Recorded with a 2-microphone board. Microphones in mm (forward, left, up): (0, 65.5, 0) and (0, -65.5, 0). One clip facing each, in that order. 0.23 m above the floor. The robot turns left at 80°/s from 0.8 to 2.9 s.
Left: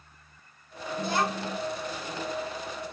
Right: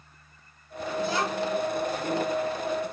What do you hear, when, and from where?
1.0 s a child speaking: 100° left, 1.3 m; by 1.6 s 50° left, 1.3 m